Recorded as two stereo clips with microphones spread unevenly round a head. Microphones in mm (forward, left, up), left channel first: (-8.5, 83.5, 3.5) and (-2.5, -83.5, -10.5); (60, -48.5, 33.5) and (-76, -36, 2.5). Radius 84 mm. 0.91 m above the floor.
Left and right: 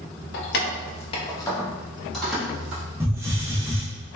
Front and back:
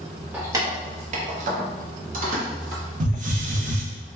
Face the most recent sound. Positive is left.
turn(degrees=-160)